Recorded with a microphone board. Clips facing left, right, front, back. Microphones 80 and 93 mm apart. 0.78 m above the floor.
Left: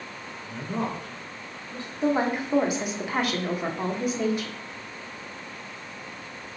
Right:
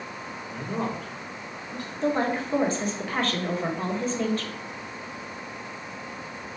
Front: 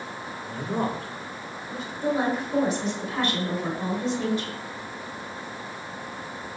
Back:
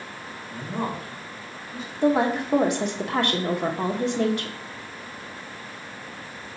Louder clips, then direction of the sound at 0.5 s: Even, front 2 dB; 15° right.